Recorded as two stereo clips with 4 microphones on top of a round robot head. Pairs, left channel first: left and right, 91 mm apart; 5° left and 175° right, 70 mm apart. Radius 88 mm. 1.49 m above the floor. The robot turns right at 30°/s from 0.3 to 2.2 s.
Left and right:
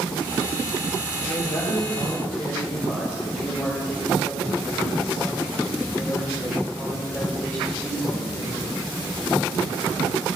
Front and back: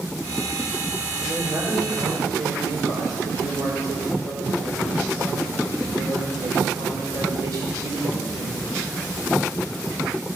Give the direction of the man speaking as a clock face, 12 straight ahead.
8 o'clock.